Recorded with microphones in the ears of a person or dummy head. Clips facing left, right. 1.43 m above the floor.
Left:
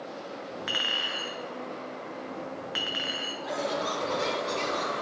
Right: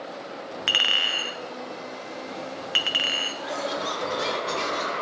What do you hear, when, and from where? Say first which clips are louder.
0.7 s a clink: right 2 dB; 50° right (ahead or behind), 0.5 m
3.4 s laughter: even; 10° right (ahead or behind), 1.3 m